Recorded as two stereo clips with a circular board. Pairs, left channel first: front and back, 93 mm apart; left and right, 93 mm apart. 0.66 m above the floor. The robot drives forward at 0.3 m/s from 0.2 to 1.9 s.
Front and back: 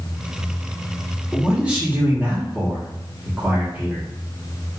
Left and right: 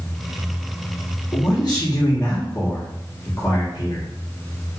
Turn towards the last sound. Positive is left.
turn(degrees=115)